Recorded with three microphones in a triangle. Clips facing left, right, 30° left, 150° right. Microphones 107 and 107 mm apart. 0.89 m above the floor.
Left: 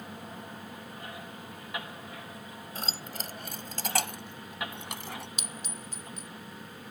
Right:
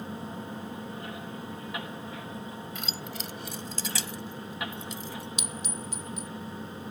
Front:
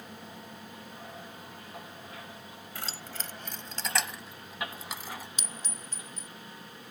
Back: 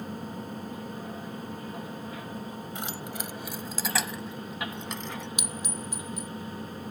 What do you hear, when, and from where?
2.8 s keys jangling: 140° left; by 5.3 s 110° left
5.4 s a clink: 135° left